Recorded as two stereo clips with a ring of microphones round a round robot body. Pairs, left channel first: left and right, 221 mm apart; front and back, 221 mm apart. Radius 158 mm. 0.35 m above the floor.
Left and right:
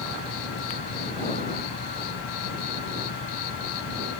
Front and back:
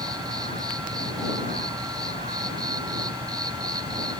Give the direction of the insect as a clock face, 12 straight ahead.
8 o'clock.